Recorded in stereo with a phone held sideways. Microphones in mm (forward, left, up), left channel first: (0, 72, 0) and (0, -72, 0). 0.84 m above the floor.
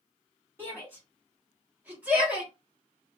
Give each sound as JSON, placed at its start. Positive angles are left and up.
{"t": 0.6, "sound": "a shout", "side_deg": -15, "distance_m": 1.5}